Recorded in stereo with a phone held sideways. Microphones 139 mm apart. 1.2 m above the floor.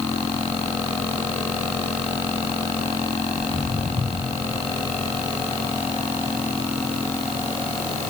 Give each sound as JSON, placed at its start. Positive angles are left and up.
{"t": 3.4, "sound": "footsteps", "side_deg": -40, "distance_m": 6.5}